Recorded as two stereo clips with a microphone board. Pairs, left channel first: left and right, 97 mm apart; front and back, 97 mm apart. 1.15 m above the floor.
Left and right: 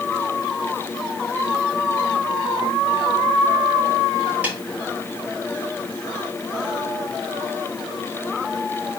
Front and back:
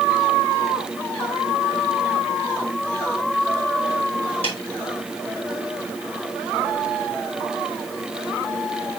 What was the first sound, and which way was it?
A snare drum, 15° right.